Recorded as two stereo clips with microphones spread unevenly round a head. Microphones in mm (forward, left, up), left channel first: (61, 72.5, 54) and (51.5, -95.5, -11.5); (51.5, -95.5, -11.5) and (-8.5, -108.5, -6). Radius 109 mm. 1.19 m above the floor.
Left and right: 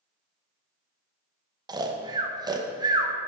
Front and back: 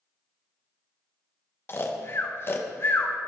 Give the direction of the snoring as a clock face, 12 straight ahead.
1 o'clock.